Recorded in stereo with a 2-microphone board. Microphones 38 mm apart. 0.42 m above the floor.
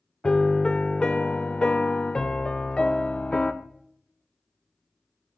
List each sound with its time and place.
0.2 s a piano: 25° left (ahead or behind), 0.5 m